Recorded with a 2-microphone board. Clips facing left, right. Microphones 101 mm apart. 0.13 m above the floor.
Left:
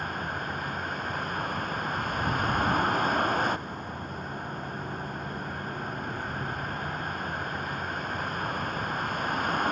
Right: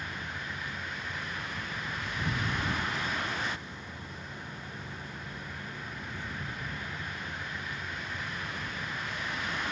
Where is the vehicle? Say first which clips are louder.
Left 7 dB; 50° left (ahead or behind).